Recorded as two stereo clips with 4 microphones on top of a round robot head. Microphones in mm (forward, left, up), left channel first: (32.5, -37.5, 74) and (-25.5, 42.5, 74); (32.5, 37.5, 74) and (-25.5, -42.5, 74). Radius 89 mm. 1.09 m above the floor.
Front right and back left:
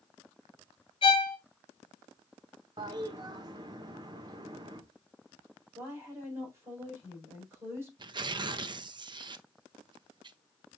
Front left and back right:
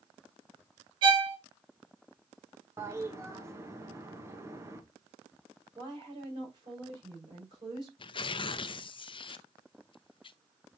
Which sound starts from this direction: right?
A violin, at 1.0 s.